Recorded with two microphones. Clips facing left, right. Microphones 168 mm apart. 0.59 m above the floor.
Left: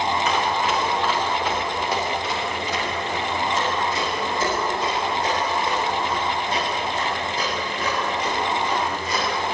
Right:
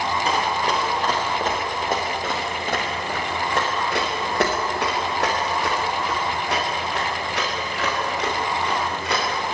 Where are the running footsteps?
35° right (ahead or behind), 9.5 m; by 9.2 s 75° right (ahead or behind), 13 m.